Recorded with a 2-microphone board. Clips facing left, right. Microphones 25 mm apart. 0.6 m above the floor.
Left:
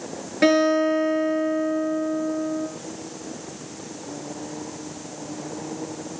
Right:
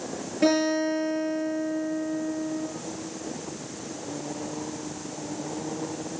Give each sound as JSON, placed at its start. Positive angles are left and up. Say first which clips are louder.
{"t": 0.4, "sound": "a guitar", "louder": "left 5 dB", "side_deg": 55, "distance_m": 7.0}